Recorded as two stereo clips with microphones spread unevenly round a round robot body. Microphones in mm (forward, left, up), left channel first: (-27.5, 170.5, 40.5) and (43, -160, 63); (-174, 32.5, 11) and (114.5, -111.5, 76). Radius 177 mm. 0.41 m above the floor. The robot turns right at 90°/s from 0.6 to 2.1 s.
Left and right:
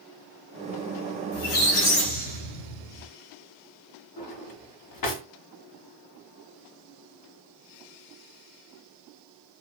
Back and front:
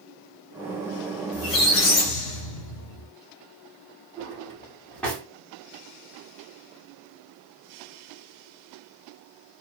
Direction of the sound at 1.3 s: 100° left.